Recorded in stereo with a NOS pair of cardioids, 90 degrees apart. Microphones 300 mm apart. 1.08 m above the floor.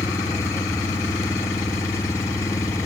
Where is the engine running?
10° left.